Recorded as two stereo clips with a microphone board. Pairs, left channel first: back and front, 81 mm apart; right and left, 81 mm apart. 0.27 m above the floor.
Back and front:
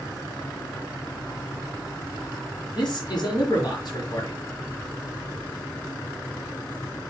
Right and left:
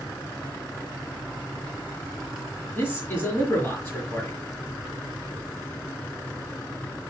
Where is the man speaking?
150° right, 4 m.